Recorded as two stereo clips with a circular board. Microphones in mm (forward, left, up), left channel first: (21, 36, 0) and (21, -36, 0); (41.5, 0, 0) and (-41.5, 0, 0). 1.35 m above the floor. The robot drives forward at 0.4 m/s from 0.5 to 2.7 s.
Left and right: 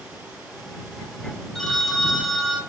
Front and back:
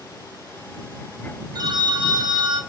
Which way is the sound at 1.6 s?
175° left.